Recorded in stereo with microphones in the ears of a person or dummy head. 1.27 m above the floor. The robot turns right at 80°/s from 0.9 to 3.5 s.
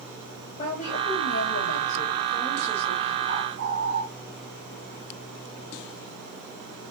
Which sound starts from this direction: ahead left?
A woman speaking, at 0.6 s.